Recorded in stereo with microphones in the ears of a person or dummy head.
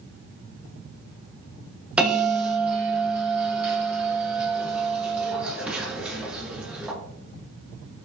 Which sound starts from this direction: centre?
A bell, at 2.0 s.